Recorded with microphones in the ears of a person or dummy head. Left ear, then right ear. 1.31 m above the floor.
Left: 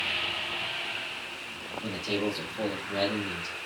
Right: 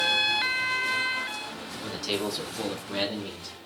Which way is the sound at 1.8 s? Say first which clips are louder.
Right 1 dB; 25° right (ahead or behind).